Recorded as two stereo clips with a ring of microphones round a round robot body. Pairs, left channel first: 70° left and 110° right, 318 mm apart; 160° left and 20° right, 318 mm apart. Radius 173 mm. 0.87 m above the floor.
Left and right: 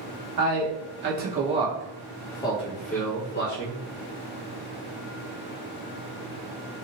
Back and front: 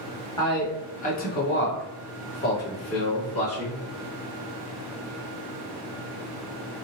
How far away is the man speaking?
About 1.1 m.